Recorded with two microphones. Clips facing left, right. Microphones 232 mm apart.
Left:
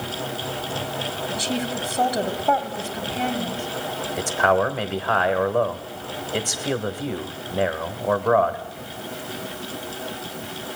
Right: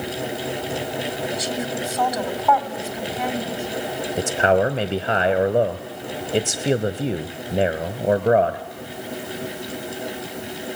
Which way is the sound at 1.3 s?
30° left (ahead or behind).